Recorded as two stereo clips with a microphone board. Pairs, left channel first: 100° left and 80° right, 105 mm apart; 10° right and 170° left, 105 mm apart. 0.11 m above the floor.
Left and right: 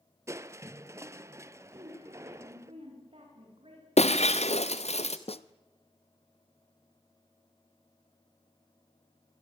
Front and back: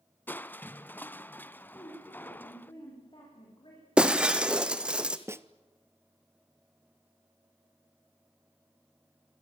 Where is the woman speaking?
50° right, 9.5 m.